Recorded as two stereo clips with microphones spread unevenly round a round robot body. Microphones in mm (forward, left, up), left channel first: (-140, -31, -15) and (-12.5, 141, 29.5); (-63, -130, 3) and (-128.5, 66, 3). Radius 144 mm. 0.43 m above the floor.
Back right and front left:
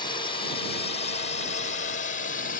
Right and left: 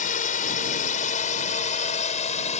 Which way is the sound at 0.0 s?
85° right.